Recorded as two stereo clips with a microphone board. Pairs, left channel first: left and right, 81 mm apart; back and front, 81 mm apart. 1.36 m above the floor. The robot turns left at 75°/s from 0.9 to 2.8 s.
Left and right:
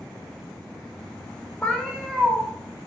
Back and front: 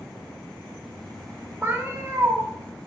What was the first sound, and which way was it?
A cat meowing, 30° left.